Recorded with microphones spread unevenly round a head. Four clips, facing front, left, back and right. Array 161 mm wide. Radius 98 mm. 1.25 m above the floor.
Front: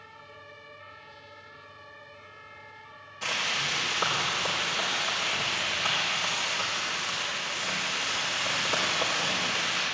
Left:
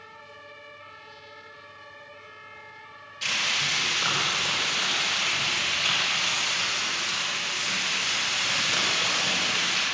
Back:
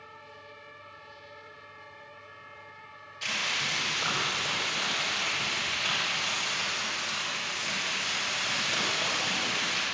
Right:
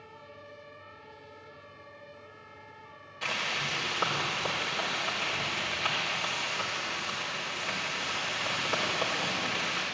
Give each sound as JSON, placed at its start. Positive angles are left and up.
{"t": 3.2, "sound": "frying", "azimuth_deg": -20, "distance_m": 4.5}